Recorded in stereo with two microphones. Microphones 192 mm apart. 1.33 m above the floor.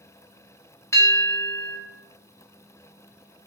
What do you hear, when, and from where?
0.9 s a bell: 15° left (ahead or behind), 1.0 m